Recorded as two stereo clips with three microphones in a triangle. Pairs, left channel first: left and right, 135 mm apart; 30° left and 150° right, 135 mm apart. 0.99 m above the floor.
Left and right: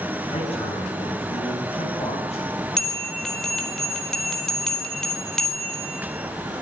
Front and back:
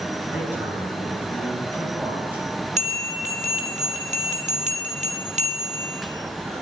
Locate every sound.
0.3 s a man speaking: 135° left, 9.5 m; by 2.5 s 130° left, 7.5 m
2.8 s a bell: 175° left, 4.5 m